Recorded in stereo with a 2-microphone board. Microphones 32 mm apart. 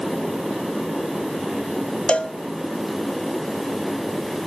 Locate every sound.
2.1 s a cowbell: 35° left (ahead or behind), 0.7 m